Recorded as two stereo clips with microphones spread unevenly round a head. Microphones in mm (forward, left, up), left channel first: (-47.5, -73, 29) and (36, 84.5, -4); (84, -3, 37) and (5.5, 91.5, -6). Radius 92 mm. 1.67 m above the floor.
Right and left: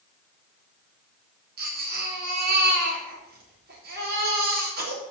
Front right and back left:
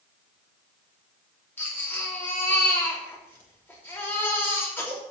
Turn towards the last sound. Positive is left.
turn(degrees=20)